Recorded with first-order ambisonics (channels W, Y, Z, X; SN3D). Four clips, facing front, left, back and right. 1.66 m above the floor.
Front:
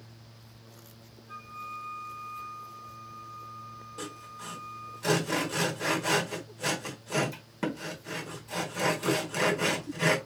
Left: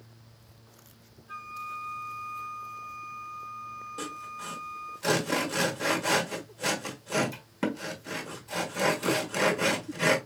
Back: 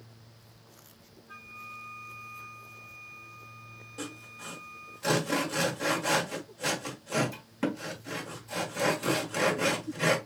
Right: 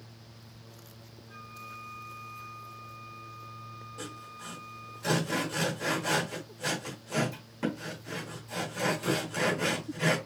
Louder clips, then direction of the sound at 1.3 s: Left 8 dB, front 4 dB; 75° left.